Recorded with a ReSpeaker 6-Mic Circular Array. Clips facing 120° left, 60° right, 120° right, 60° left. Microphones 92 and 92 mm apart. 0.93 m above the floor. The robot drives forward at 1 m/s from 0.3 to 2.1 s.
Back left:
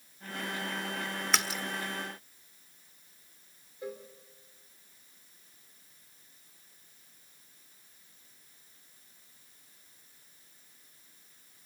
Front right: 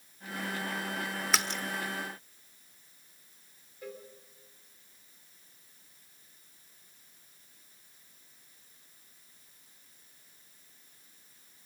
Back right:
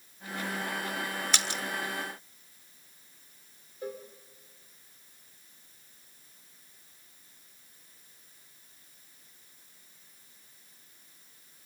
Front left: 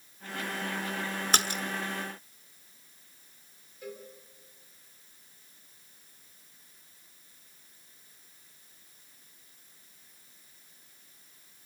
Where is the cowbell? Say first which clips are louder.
Back left 3 dB, back right 4 dB; 175° right, 2.5 m.